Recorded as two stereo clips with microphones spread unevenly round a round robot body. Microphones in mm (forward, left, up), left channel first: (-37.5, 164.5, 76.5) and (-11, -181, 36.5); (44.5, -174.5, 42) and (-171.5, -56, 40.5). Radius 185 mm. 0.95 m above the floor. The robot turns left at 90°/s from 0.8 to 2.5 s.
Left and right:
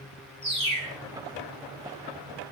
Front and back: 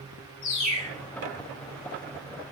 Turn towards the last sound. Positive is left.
turn(degrees=-160)